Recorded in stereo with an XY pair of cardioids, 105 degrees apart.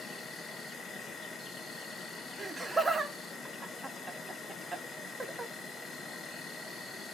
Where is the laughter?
20° right, 0.6 m.